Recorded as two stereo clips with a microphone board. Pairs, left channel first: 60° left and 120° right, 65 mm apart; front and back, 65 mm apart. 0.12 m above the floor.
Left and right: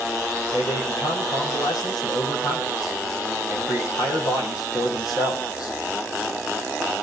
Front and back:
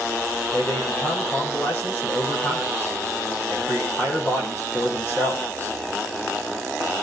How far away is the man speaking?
About 5.5 m.